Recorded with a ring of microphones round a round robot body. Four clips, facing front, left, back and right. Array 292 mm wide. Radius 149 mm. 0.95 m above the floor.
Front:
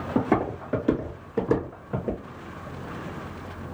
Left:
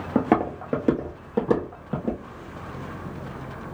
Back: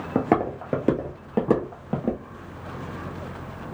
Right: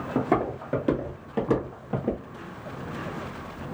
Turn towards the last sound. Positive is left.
turn(degrees=170)